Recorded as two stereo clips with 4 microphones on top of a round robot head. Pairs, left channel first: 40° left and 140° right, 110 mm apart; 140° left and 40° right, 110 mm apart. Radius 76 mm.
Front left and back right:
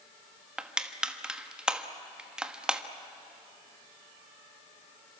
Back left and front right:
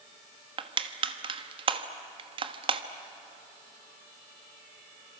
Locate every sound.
0.6 s crushing: 60° right, 1.4 m